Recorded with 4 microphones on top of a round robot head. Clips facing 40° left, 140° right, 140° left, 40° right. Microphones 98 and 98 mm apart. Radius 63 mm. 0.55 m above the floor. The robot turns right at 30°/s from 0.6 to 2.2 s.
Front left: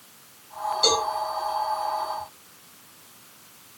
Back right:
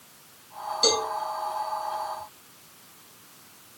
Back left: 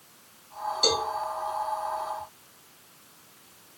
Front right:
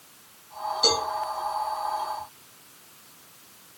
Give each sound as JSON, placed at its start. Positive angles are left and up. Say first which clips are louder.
{"t": 0.8, "sound": "a cowbell", "louder": "front left 1 dB, front right 1 dB", "azimuth_deg": 175, "distance_m": 1.7}